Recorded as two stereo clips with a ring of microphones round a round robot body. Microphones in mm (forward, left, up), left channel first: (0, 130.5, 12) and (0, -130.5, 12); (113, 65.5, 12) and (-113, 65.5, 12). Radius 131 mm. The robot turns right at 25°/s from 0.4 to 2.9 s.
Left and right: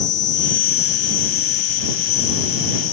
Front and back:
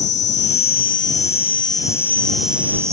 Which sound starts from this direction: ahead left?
An insect, at 0.0 s.